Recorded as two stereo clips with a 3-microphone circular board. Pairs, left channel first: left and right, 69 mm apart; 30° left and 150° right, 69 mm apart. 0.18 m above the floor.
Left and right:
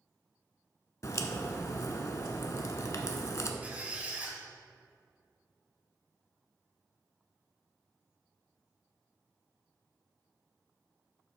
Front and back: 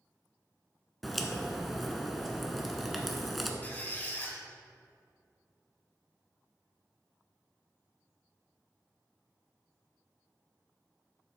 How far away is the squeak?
About 1.4 m.